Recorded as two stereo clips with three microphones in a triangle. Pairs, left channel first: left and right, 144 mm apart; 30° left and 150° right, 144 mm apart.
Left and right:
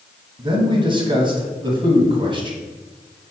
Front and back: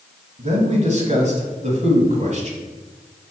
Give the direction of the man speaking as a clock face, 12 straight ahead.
5 o'clock.